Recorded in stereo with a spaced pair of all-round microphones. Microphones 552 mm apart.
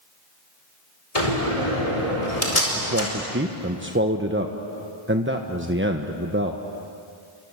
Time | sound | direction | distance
1.1 | a door slam | 85° left | 5 m
2.8 | a man speaking | 20° right (ahead or behind) | 1.1 m